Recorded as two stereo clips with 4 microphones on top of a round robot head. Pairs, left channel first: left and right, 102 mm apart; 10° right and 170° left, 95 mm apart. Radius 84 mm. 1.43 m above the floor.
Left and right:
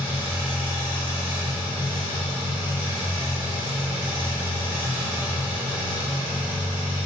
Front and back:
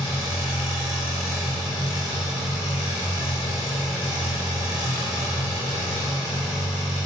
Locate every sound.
0.0 s an engine running: 15° right, 3.5 m